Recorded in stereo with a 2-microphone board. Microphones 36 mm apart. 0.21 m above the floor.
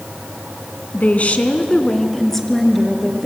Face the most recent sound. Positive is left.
turn(degrees=0)  # may be behind; listen again after turning